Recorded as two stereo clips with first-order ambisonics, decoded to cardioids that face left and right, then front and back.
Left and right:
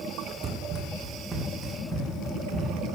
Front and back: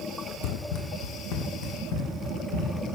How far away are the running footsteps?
About 1.2 m.